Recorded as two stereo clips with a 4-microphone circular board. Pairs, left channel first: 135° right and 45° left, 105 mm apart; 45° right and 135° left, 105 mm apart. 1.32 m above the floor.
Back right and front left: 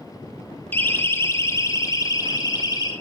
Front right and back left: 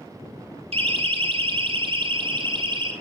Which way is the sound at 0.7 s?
155° left.